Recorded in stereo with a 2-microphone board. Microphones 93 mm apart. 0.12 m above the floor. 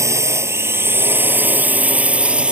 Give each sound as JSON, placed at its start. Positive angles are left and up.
{"t": 0.0, "sound": "a drone", "side_deg": -35}